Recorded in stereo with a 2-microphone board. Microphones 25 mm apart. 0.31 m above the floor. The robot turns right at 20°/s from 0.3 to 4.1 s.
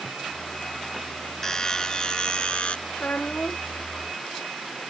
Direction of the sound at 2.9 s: 75° left (ahead or behind).